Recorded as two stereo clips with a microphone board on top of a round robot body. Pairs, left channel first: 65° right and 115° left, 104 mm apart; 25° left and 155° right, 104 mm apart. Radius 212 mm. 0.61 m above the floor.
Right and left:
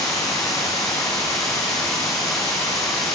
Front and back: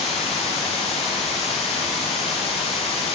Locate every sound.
0.0 s running water: 5° right, 0.7 m